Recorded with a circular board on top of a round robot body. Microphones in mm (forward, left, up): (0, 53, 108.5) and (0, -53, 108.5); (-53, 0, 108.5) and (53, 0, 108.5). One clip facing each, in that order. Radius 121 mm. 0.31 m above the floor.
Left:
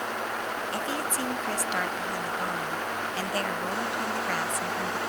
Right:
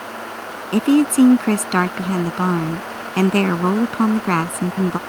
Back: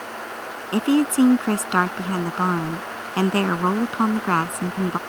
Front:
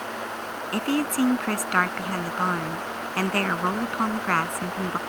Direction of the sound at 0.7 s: 115° right.